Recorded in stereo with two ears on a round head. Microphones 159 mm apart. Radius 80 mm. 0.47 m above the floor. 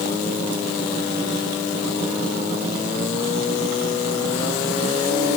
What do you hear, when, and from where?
Only background noise.